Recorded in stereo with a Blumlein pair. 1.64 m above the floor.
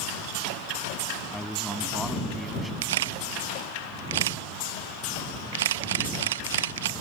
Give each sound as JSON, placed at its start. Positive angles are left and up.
{"t": 1.3, "sound": "a man speaking", "azimuth_deg": 0}
{"t": 2.8, "sound": "a camera shutter", "azimuth_deg": -60}